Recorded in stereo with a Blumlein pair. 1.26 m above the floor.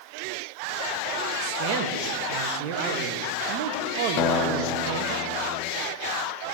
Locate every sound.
1.4 s a man speaking: 40° right, 2 m
4.2 s a guitar: 35° left, 0.9 m